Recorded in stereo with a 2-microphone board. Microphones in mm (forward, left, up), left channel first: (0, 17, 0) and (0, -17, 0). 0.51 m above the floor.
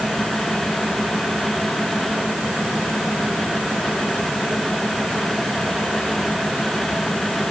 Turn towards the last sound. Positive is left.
No sound to turn to.